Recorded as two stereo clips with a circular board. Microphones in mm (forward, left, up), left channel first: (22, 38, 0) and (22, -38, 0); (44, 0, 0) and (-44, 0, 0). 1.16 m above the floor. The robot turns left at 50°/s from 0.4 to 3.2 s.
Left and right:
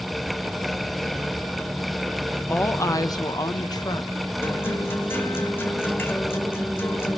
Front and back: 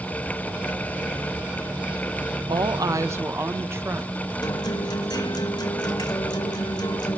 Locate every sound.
2.5 s a woman speaking: 155° left, 1.0 m; by 4.1 s 120° left, 1.0 m
4.4 s a guitar: 35° left, 2 m